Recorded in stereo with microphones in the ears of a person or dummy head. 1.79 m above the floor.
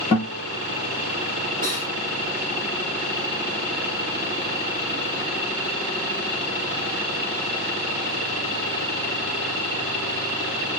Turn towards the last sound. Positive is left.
turn(degrees=-30)  # may be behind; listen again after turning